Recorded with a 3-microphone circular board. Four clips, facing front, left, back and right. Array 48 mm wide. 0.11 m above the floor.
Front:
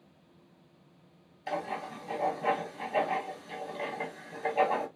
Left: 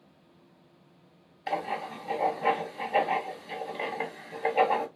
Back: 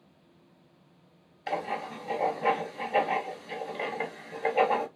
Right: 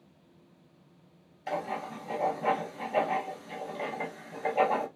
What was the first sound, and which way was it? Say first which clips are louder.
Writing: left 2 dB, back 3 dB; 140° left.